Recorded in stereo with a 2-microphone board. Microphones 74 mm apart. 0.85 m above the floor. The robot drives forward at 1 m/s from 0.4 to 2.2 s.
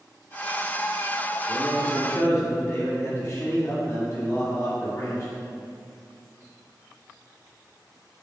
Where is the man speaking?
25° left (ahead or behind), 2.5 m; by 5.3 s 35° left (ahead or behind), 1.9 m.